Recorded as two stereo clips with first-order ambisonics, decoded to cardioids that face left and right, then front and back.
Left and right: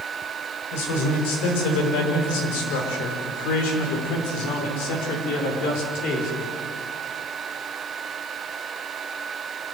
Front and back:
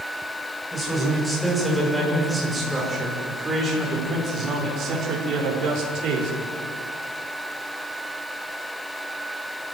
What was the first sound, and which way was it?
A man speaking, 85° left.